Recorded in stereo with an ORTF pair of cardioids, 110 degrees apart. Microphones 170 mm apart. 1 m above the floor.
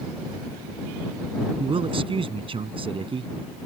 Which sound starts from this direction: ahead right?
A man speaking, at 1.6 s.